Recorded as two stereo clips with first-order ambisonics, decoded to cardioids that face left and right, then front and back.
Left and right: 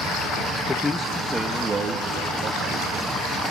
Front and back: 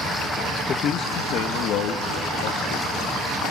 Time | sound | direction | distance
0.7 | a man speaking | 30° left | 0.7 m